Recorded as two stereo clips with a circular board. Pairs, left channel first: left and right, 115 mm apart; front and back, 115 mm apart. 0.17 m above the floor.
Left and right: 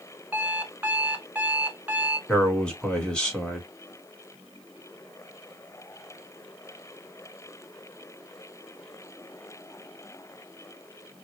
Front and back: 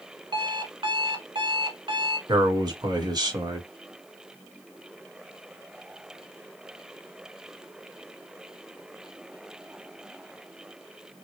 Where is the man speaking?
165° left, 1.6 m.